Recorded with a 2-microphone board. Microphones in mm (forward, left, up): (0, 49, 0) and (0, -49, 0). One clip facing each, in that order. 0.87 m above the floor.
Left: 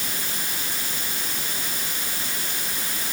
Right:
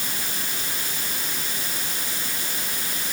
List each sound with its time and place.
Only background noise.